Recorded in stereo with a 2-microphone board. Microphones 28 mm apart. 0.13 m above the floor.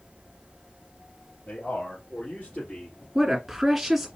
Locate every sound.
1.5 s a man speaking: 60° left (ahead or behind), 3 m; by 3.0 s 45° left (ahead or behind), 2.5 m
3.1 s a woman speaking: 5° right (ahead or behind), 1.7 m